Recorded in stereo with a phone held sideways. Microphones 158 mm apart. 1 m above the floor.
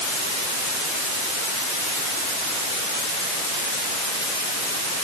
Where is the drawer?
I don't hear a drawer.